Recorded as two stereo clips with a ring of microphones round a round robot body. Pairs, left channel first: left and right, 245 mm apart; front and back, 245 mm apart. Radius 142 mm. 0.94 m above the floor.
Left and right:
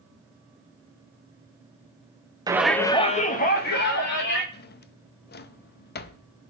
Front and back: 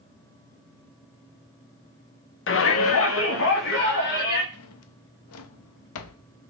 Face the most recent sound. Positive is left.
turn(degrees=35)